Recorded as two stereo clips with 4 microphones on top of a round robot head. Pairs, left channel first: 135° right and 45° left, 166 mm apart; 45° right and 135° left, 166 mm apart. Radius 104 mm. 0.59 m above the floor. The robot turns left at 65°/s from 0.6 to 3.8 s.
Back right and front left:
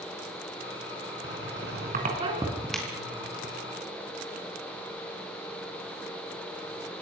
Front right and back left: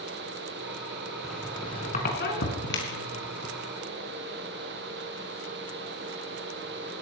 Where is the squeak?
50° left, 4 m; by 3.5 s 100° right, 4 m.